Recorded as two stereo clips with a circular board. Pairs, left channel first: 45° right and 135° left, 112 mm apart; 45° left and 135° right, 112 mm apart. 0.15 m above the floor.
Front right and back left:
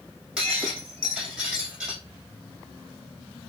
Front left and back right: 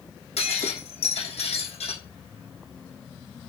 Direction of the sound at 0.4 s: 55° left.